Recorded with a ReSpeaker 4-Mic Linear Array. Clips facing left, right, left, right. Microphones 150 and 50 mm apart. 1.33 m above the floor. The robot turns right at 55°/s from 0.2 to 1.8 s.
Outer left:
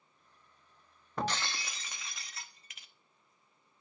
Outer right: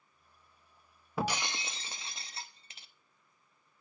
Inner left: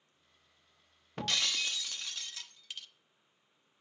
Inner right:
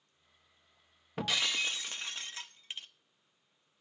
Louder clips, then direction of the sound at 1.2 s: Outer right 1 dB, inner right 2 dB; 170° right.